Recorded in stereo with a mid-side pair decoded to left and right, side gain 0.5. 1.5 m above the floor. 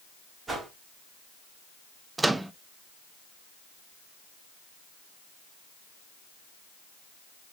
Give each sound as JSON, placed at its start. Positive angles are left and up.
{"t": 0.5, "sound": "a whoosh", "azimuth_deg": -25, "distance_m": 2.5}
{"t": 2.2, "sound": "a microwave", "azimuth_deg": -15, "distance_m": 0.5}